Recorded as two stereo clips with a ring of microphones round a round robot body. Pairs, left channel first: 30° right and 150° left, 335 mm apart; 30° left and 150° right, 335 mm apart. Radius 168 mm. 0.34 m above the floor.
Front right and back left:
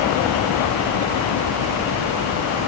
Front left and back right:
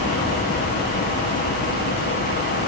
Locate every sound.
Only background noise.